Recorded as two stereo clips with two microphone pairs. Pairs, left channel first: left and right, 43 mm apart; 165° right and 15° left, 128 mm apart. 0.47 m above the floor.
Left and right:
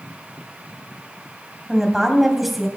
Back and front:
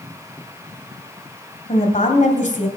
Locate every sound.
1.7 s a woman speaking: 175° right, 2.5 m